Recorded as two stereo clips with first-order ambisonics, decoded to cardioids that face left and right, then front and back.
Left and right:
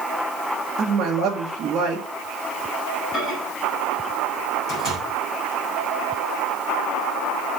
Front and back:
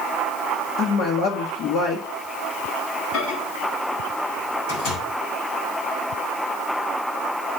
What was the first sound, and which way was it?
A woman speaking, 30° right.